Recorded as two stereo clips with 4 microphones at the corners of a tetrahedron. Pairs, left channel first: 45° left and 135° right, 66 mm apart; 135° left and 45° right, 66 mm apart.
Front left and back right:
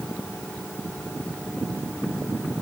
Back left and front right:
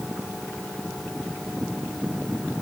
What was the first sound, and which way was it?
Only background noise.